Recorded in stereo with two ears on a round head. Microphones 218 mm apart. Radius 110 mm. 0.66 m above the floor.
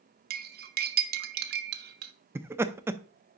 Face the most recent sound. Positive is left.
turn(degrees=-10)  # may be behind; listen again after turning